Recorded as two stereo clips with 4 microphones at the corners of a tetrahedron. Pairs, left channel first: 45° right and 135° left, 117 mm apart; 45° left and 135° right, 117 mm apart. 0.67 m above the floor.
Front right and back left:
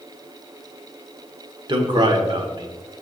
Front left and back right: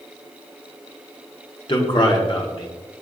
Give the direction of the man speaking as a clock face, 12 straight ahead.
9 o'clock.